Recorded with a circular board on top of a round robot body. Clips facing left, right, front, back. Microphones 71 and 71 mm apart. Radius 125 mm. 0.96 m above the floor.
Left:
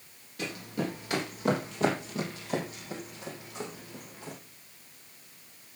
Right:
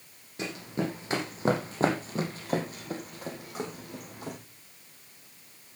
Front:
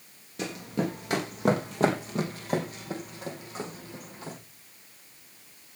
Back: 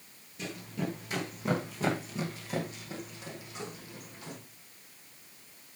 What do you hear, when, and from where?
0.4 s running footsteps: 25° right, 3.5 m; by 4.4 s 55° right, 3.5 m